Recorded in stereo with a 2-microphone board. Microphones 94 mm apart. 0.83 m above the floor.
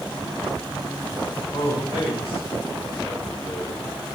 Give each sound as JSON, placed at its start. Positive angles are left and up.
{"t": 1.5, "sound": "a man speaking", "side_deg": 75, "distance_m": 3.0}